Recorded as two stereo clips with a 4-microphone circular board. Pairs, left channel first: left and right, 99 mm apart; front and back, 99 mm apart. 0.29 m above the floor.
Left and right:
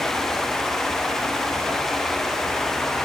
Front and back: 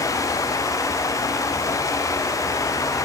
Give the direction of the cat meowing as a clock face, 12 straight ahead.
No cat meowing in this recording.